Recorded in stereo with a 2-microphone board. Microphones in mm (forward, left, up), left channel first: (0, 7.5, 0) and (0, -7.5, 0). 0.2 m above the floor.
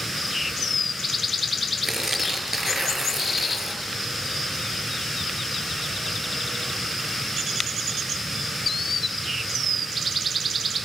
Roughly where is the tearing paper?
Right.